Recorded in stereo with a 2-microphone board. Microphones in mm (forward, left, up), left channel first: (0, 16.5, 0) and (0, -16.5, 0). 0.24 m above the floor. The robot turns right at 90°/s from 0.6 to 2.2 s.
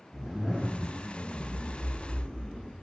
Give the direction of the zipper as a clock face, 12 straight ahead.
1 o'clock.